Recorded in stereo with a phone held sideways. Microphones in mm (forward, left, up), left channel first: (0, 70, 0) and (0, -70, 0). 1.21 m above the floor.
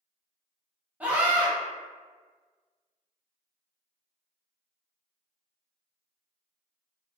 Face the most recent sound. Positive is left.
turn(degrees=-10)  # may be behind; listen again after turning